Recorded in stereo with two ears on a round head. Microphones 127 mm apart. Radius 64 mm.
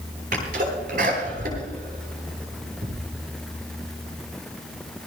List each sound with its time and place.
0.3 s a sneeze: 60° right (ahead or behind), 10 m